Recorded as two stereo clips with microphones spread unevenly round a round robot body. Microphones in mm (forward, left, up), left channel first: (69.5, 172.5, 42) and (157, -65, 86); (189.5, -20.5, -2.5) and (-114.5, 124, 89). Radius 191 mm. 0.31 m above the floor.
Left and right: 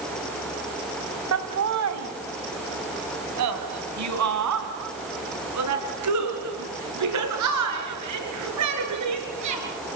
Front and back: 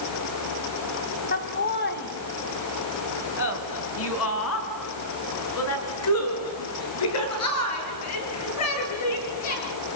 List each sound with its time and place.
1.3 s laughter: 75° right, 2.5 m; by 9.6 s 65° right, 7.5 m